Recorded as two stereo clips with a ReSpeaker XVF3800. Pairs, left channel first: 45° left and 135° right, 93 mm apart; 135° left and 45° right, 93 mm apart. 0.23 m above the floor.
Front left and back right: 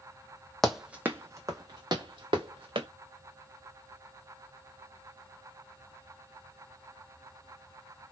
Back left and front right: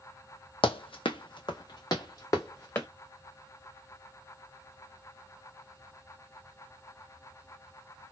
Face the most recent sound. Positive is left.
turn(degrees=-165)